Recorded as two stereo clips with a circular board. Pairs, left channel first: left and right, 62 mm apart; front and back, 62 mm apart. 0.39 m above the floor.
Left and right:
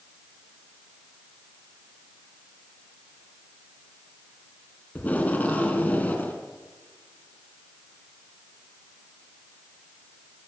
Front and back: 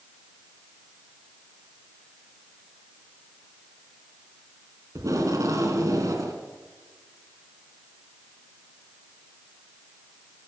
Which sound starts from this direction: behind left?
Tape being pulled, at 5.0 s.